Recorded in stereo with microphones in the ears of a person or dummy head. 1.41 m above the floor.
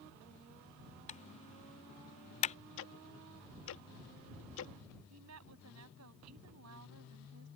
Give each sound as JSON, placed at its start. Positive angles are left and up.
{"t": 1.1, "sound": "typing on a keyboard", "side_deg": 30}
{"t": 2.8, "sound": "ticking", "side_deg": 75}
{"t": 5.1, "sound": "a woman speaking", "side_deg": -80}